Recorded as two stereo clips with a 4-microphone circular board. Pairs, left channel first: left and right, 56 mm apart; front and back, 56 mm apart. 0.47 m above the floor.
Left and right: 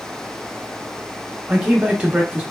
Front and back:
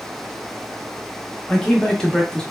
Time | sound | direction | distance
1.5 | a man speaking | 60° right | 0.7 m